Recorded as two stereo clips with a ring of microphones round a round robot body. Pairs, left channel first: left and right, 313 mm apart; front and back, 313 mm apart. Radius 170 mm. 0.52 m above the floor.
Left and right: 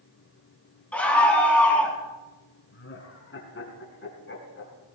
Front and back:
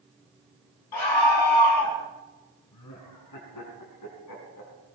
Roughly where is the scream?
Ahead.